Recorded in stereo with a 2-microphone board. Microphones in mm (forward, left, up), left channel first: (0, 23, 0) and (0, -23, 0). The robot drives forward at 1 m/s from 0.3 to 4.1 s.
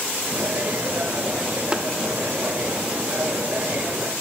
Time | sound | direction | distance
1.7 | tapping | 15° right (ahead or behind) | 1.2 m